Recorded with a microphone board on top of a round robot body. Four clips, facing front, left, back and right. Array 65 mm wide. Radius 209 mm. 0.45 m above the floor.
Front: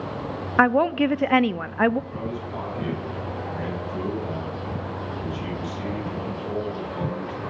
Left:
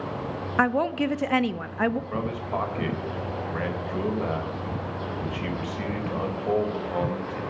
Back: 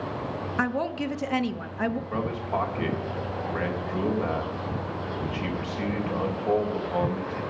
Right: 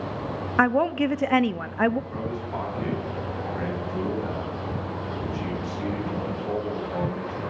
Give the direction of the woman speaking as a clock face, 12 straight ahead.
12 o'clock.